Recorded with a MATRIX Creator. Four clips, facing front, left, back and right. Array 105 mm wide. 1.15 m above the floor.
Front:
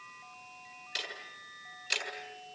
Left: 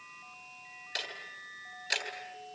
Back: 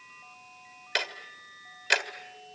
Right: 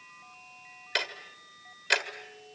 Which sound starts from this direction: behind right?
Ticking, at 0.9 s.